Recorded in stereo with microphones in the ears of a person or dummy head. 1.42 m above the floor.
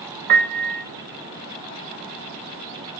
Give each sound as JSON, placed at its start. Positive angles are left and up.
{"t": 0.3, "sound": "a piano", "side_deg": -50, "distance_m": 1.1}